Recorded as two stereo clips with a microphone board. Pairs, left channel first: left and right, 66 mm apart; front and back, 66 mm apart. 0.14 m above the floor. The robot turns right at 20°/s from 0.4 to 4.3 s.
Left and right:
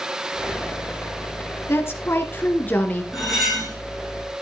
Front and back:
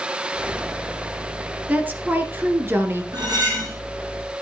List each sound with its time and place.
1.7 s a woman speaking: 120° left, 1.8 m; by 3.0 s 150° left, 1.8 m
3.1 s cutlery clinking: straight behind, 6 m; by 3.8 s 165° right, 6 m